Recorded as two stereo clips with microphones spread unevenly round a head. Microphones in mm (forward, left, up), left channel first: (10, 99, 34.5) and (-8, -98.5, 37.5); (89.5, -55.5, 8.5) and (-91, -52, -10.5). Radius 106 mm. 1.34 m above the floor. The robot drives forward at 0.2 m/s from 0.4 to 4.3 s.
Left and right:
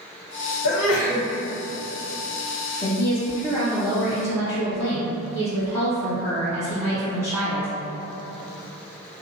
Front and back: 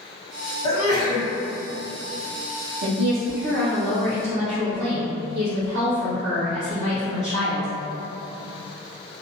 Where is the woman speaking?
150° left, 0.7 m; by 7.7 s 160° left, 1.0 m.